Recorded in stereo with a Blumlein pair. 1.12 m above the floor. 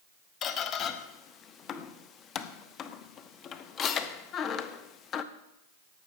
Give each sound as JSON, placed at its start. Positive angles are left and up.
{"t": 0.4, "sound": "a squeak", "azimuth_deg": 30, "distance_m": 1.0}